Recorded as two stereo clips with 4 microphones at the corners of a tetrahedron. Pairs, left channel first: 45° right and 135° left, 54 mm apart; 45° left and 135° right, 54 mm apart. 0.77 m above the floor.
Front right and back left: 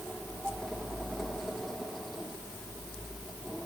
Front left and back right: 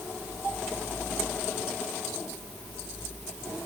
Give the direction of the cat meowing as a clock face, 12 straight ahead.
I don't hear a cat meowing.